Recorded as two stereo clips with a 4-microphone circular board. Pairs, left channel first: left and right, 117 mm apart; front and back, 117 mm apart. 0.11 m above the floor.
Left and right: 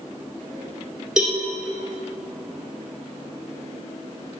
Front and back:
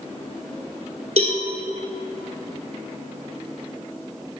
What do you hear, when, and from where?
1.2 s a cowbell: 175° right, 1.7 m